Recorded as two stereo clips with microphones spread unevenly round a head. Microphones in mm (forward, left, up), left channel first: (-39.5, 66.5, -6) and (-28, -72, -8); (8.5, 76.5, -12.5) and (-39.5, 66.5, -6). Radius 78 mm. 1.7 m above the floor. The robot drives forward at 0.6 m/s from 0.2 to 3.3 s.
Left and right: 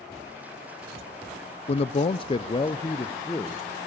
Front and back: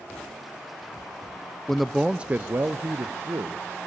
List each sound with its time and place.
1.7 s a man speaking: 95° left, 0.5 m; by 3.9 s 160° left, 1.1 m